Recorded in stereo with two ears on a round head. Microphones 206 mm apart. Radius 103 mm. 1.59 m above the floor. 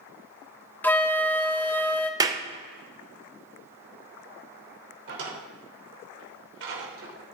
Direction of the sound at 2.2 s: 15° right (ahead or behind).